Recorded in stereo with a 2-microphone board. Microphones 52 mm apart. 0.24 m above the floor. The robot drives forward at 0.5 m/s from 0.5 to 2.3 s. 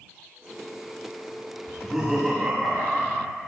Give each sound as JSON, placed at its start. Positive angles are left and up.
{"t": 1.7, "sound": "laughter", "side_deg": -10, "distance_m": 1.5}